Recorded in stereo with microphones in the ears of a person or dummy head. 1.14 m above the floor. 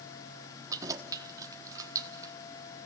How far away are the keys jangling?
About 1.1 m.